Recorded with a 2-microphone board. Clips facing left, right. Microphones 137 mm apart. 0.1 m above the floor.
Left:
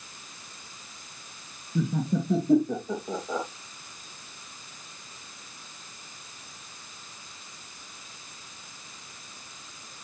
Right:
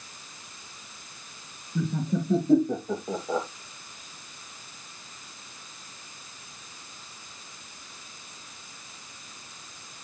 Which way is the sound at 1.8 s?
15° left (ahead or behind).